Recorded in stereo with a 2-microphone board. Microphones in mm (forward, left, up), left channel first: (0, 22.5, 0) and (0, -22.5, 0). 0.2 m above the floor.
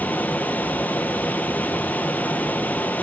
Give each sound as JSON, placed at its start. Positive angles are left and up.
{"t": 0.0, "sound": "running water", "side_deg": 40, "distance_m": 1.3}